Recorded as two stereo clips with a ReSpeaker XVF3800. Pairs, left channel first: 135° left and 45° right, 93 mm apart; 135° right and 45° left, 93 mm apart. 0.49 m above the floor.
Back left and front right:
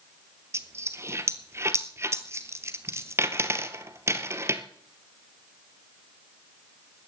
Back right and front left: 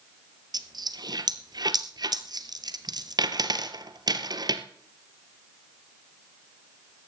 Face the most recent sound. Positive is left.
turn(degrees=10)